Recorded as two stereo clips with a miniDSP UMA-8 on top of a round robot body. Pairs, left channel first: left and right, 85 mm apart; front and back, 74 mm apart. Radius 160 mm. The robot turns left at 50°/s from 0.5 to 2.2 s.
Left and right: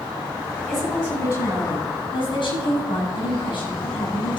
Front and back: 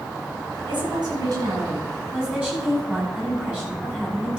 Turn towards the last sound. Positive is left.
turn(degrees=110)